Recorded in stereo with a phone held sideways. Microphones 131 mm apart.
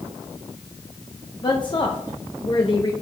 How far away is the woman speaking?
About 0.7 m.